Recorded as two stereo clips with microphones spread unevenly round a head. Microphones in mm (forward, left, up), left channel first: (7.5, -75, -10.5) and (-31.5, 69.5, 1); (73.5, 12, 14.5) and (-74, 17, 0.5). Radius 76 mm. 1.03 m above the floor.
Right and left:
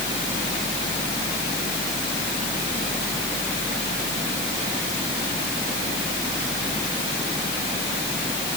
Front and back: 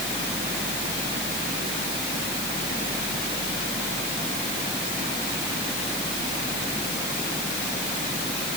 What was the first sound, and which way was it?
Only background noise.